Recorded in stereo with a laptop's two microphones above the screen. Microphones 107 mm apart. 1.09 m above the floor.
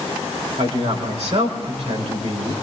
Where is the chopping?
I don't hear chopping.